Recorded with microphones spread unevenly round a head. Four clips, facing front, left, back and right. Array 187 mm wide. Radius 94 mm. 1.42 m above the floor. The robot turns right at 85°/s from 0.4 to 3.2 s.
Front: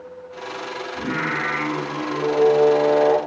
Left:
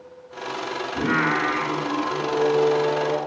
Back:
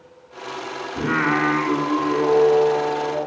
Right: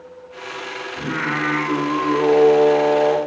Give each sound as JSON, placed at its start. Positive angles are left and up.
{"t": 1.0, "sound": "singing", "azimuth_deg": 130, "distance_m": 2.5}